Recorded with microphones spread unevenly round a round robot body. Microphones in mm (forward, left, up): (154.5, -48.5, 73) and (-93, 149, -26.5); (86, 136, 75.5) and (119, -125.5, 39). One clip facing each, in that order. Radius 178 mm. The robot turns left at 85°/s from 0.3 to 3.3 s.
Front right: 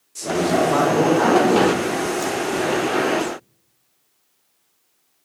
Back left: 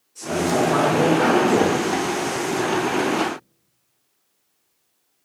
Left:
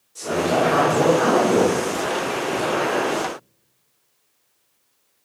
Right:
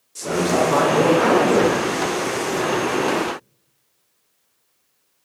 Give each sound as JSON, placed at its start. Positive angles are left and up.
{"t": 0.1, "sound": "a man speaking", "azimuth_deg": -65, "distance_m": 0.9}